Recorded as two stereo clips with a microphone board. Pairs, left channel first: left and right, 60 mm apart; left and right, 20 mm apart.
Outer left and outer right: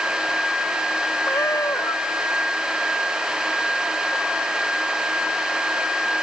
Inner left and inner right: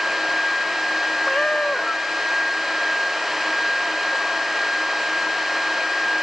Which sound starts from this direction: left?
A cat meowing, at 1.2 s.